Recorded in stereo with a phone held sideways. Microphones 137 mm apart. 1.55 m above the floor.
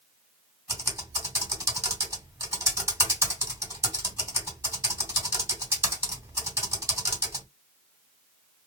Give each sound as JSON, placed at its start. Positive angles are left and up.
{"t": 0.7, "sound": "typing on a keyboard", "side_deg": -20, "distance_m": 2.0}